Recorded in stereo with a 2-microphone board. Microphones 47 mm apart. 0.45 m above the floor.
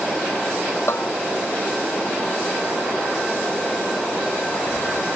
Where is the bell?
70° left (ahead or behind).